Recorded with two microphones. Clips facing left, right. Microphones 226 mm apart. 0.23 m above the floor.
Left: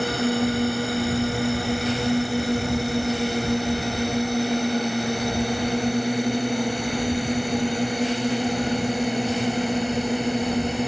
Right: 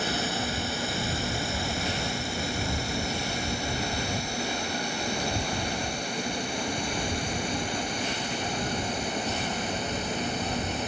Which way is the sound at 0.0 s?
65° left (ahead or behind).